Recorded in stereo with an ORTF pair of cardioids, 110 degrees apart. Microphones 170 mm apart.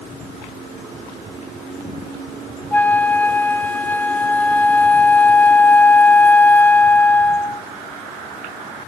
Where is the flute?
10° left, 0.7 m.